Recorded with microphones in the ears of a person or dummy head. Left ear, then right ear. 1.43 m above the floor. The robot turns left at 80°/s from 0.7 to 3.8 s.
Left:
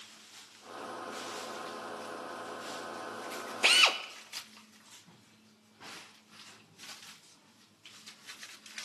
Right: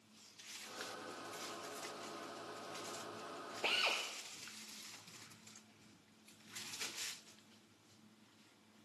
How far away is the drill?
About 0.6 m.